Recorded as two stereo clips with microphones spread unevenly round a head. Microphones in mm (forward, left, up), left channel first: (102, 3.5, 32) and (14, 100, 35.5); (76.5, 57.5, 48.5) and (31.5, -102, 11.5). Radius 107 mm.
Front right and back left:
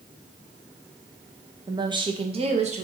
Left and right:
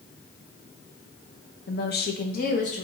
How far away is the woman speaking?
About 0.9 m.